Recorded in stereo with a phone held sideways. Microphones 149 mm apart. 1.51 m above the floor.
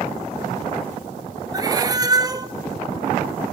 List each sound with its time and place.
1.5 s a cat meowing: 25° right (ahead or behind), 0.7 m